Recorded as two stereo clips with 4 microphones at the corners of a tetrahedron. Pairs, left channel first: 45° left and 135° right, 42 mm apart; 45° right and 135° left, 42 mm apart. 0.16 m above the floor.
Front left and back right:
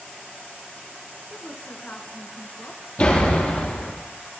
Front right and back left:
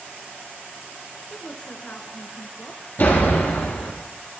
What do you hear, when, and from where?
1.3 s a woman speaking: 10° left, 1.8 m
3.0 s a door slam: 5° right, 3.5 m